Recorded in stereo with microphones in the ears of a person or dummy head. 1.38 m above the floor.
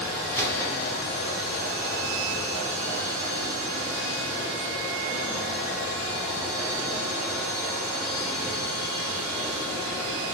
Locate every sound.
0.3 s a gunshot: 20° left (ahead or behind), 2.5 m